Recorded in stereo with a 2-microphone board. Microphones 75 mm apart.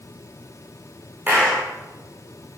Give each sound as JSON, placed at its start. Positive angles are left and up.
{"t": 1.3, "sound": "a clap", "side_deg": -20, "distance_m": 9.5}